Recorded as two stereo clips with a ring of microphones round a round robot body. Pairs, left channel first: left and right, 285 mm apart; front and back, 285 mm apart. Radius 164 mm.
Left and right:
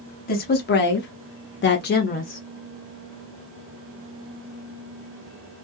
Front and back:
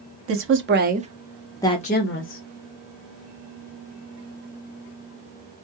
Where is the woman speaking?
145° left, 1.0 m; by 2.4 s 25° left, 0.8 m.